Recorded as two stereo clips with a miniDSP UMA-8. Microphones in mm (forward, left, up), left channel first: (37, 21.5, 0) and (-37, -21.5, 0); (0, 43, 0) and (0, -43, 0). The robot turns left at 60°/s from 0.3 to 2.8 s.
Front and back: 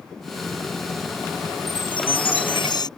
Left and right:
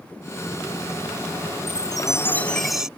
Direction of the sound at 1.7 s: 60° left.